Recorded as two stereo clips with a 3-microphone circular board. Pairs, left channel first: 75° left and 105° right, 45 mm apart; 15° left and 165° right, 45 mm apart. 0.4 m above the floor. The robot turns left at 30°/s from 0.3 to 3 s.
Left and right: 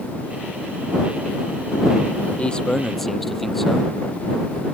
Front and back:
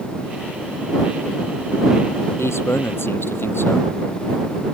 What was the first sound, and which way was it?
A man speaking, 10° left.